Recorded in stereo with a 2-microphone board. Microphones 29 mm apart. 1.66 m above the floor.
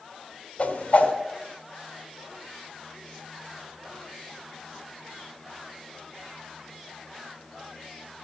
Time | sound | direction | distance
0.6 | a whoosh | 55° left (ahead or behind) | 2.5 m